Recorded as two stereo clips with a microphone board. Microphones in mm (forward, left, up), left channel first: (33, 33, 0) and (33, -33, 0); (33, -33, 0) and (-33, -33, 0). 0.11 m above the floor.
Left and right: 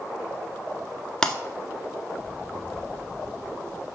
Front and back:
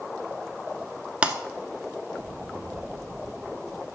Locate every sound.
1.2 s breaking glass: 150° left, 0.8 m